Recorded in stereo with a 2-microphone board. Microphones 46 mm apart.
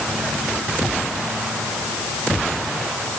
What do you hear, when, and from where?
Only background noise.